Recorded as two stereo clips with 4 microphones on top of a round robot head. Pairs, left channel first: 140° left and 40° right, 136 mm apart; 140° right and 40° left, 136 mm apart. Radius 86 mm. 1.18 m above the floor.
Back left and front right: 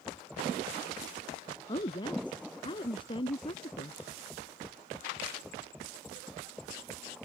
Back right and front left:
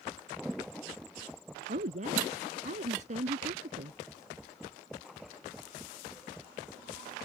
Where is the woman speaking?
80° left; by 4.0 s 85° left.